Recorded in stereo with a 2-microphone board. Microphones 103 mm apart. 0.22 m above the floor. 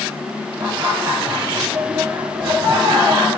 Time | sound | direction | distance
0.6 | laughter | 40° right (ahead or behind) | 4 m